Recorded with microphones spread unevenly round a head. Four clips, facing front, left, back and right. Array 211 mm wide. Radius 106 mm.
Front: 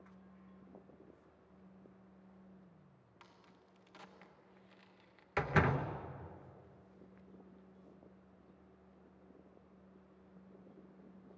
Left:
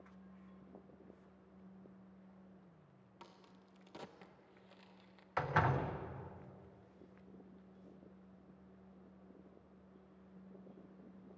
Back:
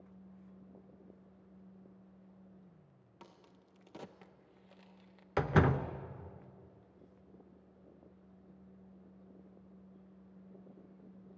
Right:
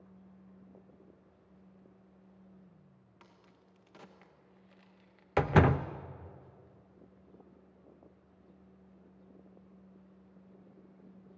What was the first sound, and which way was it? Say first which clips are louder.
A crack: left 3 dB, back 5 dB; 165° left.